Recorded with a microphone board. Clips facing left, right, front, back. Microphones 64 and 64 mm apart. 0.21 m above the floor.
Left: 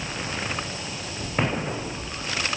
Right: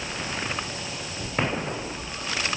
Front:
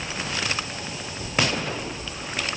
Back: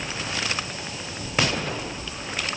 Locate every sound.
Only background noise.